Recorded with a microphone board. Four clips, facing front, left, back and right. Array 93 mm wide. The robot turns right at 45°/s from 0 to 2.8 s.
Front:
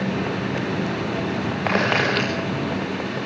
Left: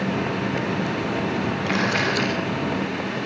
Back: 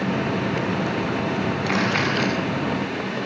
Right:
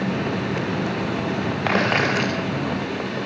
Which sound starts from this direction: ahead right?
A camera shutter, at 1.7 s.